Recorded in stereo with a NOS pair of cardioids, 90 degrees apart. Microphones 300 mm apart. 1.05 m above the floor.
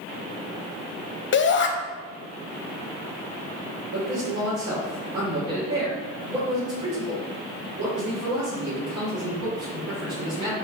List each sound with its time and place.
1.3 s a shout: 40° left, 0.8 m
3.9 s a man speaking: 55° right, 1.8 m